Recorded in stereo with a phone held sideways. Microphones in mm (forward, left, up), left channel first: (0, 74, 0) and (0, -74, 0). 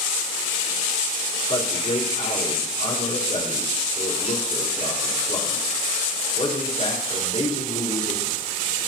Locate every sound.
1.5 s a man speaking: 45° left (ahead or behind), 5.5 m